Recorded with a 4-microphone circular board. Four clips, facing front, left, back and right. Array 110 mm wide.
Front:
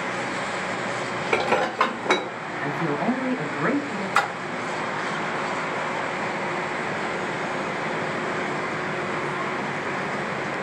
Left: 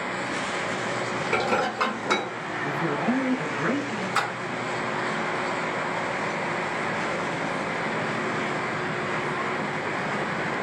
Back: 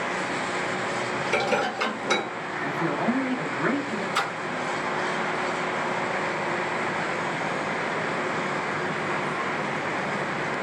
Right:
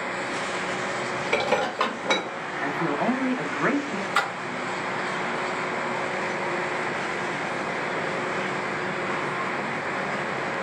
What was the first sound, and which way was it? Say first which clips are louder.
Dishes clattering: right 1 dB, front 4 dB; 10° right.